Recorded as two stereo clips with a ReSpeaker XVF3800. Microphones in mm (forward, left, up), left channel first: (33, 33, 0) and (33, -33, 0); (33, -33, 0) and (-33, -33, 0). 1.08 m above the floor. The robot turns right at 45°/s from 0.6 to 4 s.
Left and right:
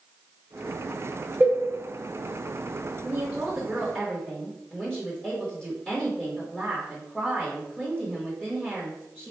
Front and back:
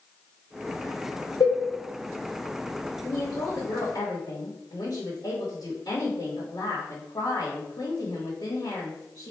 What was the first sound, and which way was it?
A cowbell, 15° right.